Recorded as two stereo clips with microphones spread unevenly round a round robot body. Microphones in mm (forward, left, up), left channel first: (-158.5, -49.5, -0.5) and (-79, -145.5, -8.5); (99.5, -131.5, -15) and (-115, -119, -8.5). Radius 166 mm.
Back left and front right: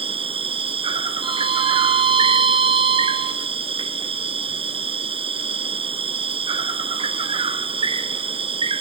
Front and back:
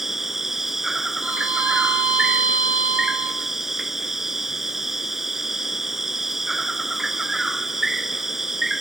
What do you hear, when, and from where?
0.0 s an insect: 95° right, 1.5 m
1.2 s a violin: 100° right, 3.5 m